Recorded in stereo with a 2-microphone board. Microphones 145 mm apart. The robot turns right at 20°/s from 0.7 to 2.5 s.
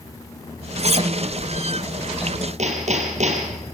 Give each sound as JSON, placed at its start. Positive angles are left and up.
{"t": 0.8, "sound": "cutlery clinking", "side_deg": -50, "distance_m": 0.9}
{"t": 2.6, "sound": "hammering", "side_deg": -55, "distance_m": 3.0}